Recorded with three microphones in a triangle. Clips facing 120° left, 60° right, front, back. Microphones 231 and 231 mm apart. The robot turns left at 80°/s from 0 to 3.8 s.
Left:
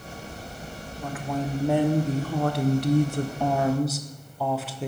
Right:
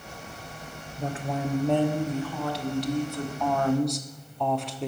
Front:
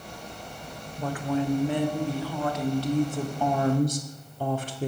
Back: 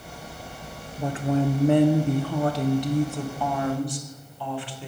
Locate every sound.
1.0 s a woman speaking: 100° right, 0.6 m; by 4.9 s 35° left, 0.6 m